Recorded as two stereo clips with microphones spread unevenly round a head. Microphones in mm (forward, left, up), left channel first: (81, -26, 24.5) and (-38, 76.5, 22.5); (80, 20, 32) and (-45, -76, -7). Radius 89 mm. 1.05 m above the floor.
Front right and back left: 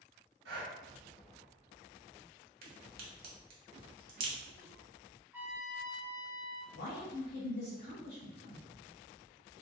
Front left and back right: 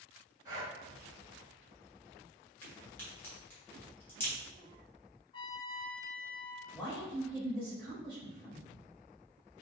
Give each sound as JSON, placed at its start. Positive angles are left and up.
{"t": 0.5, "sound": "breathing", "azimuth_deg": 140, "distance_m": 1.7}
{"t": 2.6, "sound": "a crack", "azimuth_deg": 110, "distance_m": 1.1}
{"t": 5.3, "sound": "a trumpet", "azimuth_deg": 65, "distance_m": 0.7}
{"t": 6.7, "sound": "a man speaking", "azimuth_deg": -30, "distance_m": 1.7}